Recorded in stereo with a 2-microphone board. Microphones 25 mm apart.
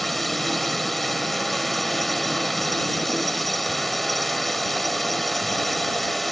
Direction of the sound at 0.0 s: 10° left (ahead or behind).